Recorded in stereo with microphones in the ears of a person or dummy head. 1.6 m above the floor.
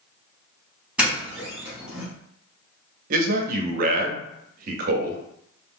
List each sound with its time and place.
1.0 s a doorbell: 5° right (ahead or behind), 1.0 m
3.1 s a man speaking: 50° right (ahead or behind), 0.6 m